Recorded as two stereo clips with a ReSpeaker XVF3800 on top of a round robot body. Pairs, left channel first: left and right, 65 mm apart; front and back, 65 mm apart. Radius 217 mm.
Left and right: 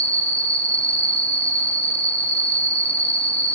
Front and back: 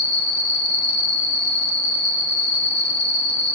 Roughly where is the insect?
Behind left.